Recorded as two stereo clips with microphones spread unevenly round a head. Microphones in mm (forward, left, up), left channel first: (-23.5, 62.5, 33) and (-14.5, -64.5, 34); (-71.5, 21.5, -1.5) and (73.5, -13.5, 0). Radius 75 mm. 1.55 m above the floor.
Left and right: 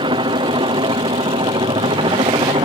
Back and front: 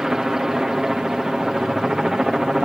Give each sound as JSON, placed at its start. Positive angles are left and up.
{"t": 0.0, "sound": "a helicopter", "azimuth_deg": -100}